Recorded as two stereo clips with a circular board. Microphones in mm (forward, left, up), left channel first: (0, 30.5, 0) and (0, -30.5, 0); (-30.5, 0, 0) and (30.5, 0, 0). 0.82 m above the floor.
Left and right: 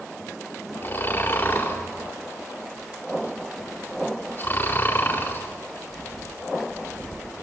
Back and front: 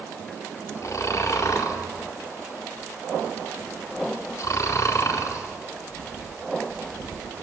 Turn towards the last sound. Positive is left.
turn(degrees=145)